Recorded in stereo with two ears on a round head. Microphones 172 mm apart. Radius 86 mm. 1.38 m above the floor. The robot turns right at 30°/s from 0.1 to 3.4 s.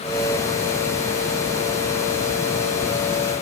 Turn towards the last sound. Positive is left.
No sound to turn to.